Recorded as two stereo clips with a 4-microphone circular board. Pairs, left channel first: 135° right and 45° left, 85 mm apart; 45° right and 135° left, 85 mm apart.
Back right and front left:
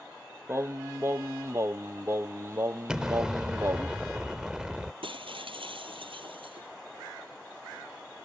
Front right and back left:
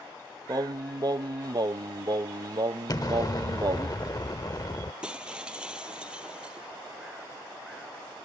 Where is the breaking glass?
55° left.